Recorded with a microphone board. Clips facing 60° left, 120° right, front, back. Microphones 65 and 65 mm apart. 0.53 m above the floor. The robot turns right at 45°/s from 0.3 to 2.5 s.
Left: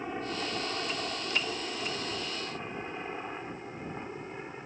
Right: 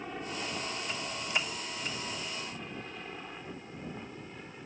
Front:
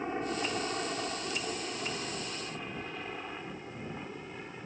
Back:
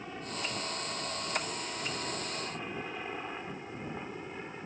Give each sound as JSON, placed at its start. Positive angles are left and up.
{"t": 0.0, "sound": "a helicopter", "azimuth_deg": 5}